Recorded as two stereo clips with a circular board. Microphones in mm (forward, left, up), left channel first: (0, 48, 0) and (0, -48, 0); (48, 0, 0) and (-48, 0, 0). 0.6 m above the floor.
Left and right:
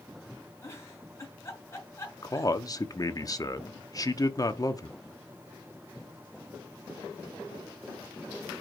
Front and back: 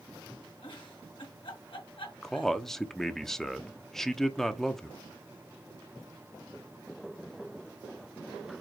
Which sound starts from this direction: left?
A man speaking, at 2.2 s.